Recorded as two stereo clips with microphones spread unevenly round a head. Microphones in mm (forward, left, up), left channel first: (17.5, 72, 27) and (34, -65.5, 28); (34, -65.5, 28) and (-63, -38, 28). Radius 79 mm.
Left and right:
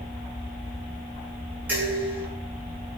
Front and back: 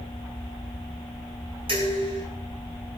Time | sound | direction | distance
1.7 | dishes clattering | 160° right | 8 m